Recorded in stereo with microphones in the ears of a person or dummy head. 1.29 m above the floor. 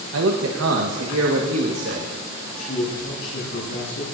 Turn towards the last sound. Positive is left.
turn(degrees=90)